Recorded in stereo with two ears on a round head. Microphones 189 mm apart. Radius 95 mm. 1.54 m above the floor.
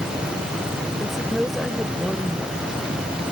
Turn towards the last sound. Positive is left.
turn(degrees=0)  # may be behind; listen again after turning